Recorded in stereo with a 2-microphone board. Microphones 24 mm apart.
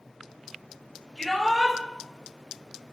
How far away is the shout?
About 3 m.